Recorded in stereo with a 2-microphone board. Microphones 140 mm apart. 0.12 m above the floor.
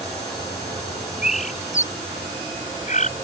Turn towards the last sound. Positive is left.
turn(degrees=70)  # may be behind; listen again after turning